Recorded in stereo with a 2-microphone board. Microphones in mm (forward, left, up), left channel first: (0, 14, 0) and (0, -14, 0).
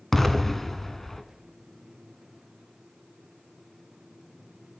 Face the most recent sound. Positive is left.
turn(degrees=10)  # may be behind; listen again after turning